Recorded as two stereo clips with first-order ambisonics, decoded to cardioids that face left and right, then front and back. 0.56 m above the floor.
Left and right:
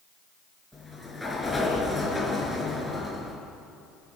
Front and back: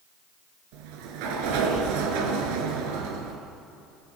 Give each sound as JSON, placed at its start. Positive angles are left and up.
{"t": 0.7, "sound": "a sliding door", "azimuth_deg": 175, "distance_m": 3.5}